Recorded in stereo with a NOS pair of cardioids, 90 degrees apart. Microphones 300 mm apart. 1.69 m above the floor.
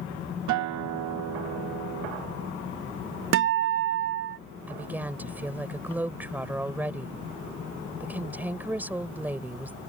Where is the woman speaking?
5° right.